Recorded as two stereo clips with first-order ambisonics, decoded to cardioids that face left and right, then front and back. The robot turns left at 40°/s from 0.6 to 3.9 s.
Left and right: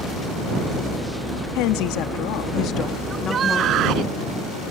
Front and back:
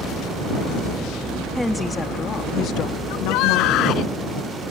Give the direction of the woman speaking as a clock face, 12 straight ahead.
9 o'clock.